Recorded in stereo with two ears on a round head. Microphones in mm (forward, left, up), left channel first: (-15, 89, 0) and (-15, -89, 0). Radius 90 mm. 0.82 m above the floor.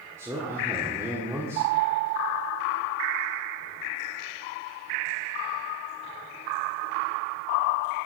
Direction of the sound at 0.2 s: 15° right (ahead or behind).